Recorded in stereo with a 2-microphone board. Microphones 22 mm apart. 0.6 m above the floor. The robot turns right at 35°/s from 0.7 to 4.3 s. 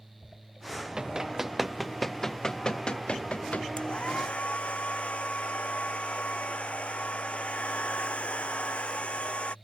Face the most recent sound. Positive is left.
turn(degrees=65)  # may be behind; listen again after turning